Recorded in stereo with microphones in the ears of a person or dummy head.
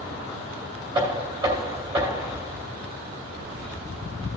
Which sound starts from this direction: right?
Knocking, at 0.9 s.